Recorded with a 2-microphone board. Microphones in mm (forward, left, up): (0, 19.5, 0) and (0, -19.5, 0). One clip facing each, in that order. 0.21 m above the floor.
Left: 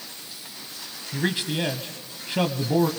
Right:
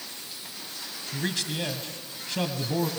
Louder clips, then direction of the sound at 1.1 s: Left 5 dB; 25° left (ahead or behind).